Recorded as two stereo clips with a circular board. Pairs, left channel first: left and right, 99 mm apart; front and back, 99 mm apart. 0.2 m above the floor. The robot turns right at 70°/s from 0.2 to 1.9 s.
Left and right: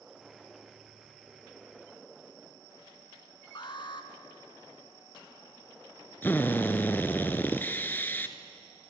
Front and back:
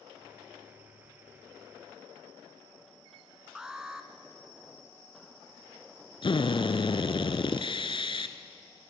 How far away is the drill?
About 1.2 m.